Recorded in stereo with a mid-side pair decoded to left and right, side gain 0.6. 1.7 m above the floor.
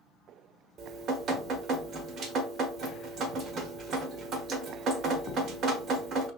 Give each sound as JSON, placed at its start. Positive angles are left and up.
{"t": 0.8, "sound": "dripping", "azimuth_deg": -55, "distance_m": 1.1}